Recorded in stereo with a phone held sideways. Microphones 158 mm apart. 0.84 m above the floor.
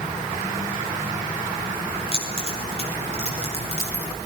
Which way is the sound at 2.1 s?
40° left (ahead or behind).